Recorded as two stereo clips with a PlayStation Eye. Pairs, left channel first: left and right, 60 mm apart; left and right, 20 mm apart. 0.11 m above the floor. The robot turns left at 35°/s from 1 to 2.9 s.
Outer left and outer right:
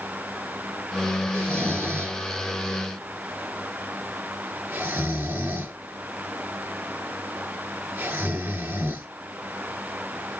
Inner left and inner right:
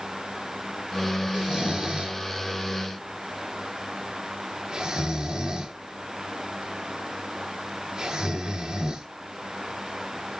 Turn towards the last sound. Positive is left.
turn(degrees=-35)  # may be behind; listen again after turning